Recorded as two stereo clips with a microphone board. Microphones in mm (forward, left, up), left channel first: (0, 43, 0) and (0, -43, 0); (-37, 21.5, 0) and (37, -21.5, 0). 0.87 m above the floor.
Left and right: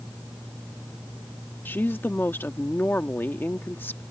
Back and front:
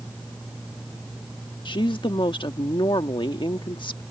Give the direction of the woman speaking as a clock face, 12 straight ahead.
7 o'clock.